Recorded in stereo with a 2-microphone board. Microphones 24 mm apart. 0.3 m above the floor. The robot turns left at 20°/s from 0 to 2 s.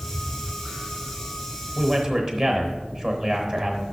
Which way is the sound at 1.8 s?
5° right (ahead or behind).